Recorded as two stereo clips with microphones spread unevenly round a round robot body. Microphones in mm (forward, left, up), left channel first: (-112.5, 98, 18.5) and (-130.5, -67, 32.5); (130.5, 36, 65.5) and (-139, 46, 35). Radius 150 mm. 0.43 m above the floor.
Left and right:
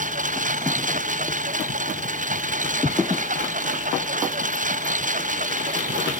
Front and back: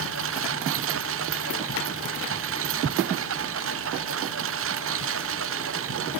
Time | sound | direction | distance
0.0 | a lawn mower | 135° right | ?